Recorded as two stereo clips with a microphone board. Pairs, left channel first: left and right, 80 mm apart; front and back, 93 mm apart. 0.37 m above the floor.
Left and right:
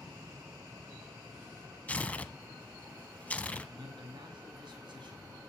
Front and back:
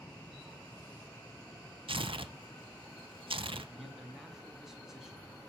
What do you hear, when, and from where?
1.9 s tearing paper: 160° left, 0.6 m
3.7 s a man speaking: 95° right, 2.5 m